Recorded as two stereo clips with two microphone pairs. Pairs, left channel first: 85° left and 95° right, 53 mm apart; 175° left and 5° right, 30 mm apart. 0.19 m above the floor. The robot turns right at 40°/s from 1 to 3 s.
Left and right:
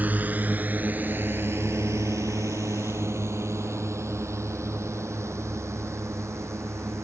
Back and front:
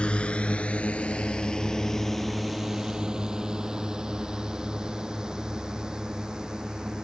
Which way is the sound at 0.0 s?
145° right.